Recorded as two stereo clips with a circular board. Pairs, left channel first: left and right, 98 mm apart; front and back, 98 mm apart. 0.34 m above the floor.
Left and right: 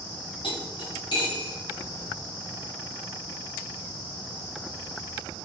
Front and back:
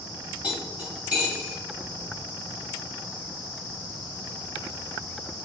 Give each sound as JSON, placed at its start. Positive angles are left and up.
{"t": 0.4, "sound": "cutlery clinking", "azimuth_deg": 105, "distance_m": 1.2}